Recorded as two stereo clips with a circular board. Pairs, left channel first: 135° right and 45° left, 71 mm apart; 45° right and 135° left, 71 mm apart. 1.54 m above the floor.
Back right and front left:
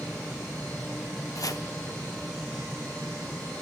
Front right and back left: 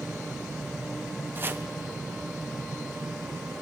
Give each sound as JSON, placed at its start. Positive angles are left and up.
{"t": 1.4, "sound": "chopping", "azimuth_deg": -170, "distance_m": 1.2}